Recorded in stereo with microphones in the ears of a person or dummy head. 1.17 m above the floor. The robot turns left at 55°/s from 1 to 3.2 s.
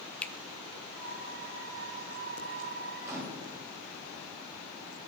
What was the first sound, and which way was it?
A finger snap, 5° left (ahead or behind).